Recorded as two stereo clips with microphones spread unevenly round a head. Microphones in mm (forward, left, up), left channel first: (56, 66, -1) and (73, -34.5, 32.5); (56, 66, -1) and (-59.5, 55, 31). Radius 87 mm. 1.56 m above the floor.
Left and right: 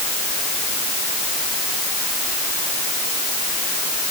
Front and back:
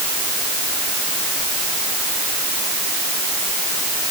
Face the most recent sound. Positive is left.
No sound to turn to.